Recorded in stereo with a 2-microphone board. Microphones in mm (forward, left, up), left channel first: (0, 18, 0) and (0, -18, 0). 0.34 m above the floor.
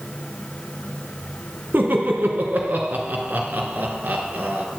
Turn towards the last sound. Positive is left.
turn(degrees=-50)  # may be behind; listen again after turning